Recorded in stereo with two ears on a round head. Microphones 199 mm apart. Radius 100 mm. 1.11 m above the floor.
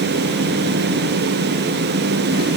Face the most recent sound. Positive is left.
No sound to turn to.